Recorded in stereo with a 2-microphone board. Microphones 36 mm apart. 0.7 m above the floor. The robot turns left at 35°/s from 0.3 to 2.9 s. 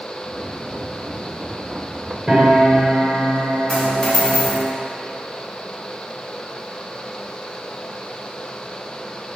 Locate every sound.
2.3 s a piano: 20° right (ahead or behind), 2 m; by 4.7 s 40° right (ahead or behind), 2 m
3.7 s a dropped coin: 30° left (ahead or behind), 2.5 m